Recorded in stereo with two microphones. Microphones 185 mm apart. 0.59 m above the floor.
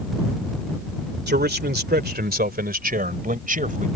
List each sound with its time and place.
1.3 s a man speaking: 65° right (ahead or behind); by 3.9 s 45° right (ahead or behind)